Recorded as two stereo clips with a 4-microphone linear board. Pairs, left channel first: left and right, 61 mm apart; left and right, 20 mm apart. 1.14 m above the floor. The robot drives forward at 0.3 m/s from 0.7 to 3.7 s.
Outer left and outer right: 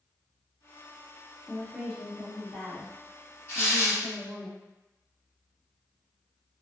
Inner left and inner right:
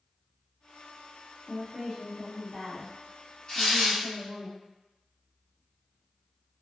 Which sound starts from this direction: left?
Tearing paper, at 3.5 s.